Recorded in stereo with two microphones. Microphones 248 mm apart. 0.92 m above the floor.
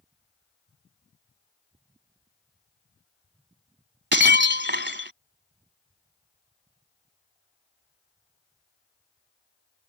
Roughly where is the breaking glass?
Right.